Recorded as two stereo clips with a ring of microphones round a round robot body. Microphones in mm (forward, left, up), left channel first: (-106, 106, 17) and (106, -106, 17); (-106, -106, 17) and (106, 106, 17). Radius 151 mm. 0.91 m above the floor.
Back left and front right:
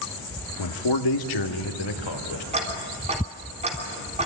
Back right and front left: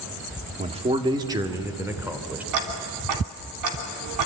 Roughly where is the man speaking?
Behind left.